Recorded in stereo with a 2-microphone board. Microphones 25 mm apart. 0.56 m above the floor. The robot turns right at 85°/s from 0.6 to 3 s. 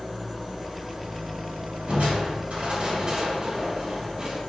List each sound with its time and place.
0.0 s an engine running: 175° right, 1.5 m; by 4.5 s 30° left, 1.5 m
1.9 s crushing: 130° right, 2.5 m; by 4.4 s 35° right, 2.5 m